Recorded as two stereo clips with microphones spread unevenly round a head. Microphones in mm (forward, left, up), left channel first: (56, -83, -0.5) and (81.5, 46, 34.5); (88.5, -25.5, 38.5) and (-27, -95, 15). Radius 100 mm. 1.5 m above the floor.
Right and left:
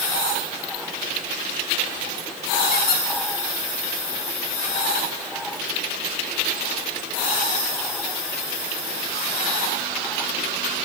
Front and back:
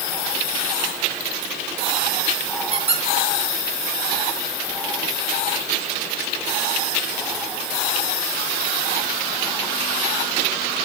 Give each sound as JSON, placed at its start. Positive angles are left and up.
{"t": 2.7, "sound": "a squeak", "azimuth_deg": -100, "distance_m": 3.0}